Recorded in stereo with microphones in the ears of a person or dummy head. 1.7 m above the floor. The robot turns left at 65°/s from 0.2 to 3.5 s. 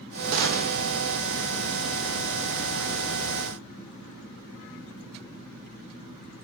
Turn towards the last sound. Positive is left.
turn(degrees=85)